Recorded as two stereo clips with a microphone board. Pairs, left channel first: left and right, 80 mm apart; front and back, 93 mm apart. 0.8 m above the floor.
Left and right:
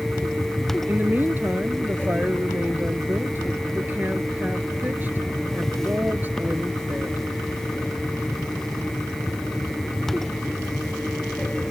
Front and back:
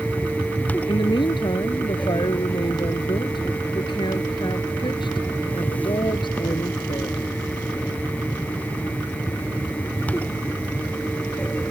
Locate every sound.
0.9 s a woman speaking: 25° right